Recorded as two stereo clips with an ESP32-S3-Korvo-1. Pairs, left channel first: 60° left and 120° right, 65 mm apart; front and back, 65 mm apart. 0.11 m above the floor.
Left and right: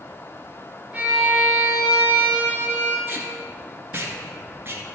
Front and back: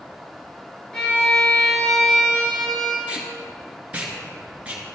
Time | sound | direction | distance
0.9 | a violin | 70° right | 2 m
3.1 | tape being pulled | 130° right | 1.6 m